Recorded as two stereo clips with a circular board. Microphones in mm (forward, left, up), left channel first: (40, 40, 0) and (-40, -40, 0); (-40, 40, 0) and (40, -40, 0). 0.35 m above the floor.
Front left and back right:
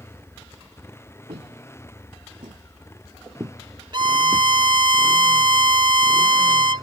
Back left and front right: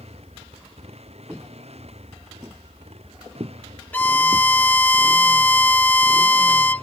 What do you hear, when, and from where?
0.0 s a motorcycle: 25° right; by 6.8 s 15° right
1.3 s footsteps: 135° right; by 4.5 s 40° right
3.9 s a violin: 155° right